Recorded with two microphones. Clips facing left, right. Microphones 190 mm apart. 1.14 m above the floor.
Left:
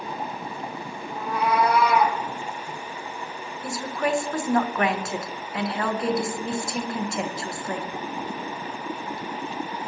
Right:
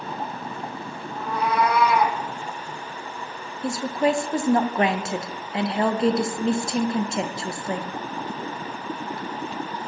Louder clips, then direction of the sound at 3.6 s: Right 5 dB; 25° right (ahead or behind).